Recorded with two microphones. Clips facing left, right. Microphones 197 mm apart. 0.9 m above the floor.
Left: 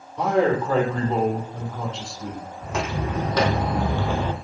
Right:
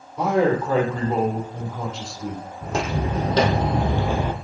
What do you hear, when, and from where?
0.2 s a man speaking: 5° right (ahead or behind), 3.5 m
2.6 s footsteps: 40° right (ahead or behind), 2.5 m; by 4.3 s 10° right (ahead or behind), 1.2 m